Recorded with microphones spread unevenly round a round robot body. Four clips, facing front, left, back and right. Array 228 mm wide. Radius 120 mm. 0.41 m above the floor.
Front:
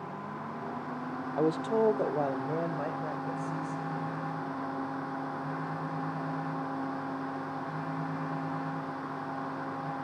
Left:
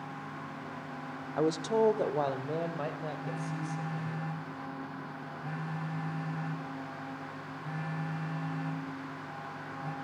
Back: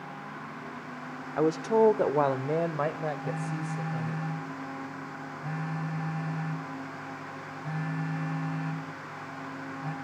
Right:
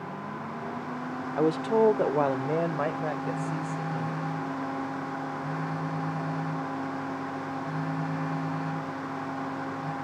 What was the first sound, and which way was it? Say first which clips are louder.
A woman speaking: right 4 dB, back 4 dB; 135° right.